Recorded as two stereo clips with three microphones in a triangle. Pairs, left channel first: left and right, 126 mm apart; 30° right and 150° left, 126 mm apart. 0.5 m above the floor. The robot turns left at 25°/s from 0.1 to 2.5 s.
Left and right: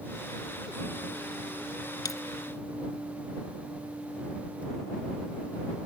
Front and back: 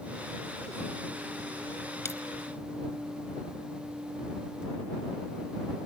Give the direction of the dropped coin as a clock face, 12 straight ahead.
11 o'clock.